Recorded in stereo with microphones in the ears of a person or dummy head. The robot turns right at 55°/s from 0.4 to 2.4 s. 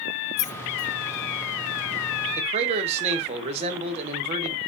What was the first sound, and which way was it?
Keys jangling, 75° left (ahead or behind).